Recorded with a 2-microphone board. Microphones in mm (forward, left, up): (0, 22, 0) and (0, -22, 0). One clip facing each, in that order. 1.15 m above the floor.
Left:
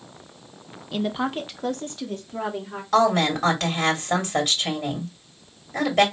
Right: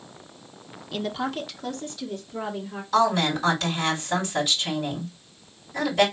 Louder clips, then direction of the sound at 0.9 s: Left 3 dB; 5° left (ahead or behind).